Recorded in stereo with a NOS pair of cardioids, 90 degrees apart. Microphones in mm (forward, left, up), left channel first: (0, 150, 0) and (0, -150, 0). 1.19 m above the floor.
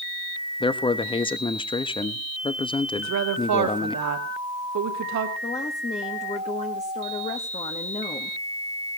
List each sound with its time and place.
0.6 s a man speaking: 15° left, 1.1 m
3.0 s a woman speaking: 65° right, 2.5 m
5.4 s a woman speaking: 20° left, 1.7 m